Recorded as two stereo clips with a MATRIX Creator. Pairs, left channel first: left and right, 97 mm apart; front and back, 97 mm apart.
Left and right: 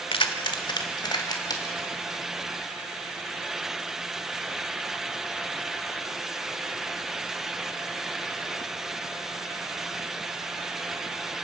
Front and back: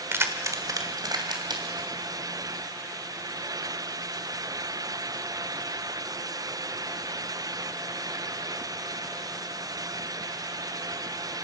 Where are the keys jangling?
115° left, 1.5 m; by 1.9 s 140° left, 3.5 m.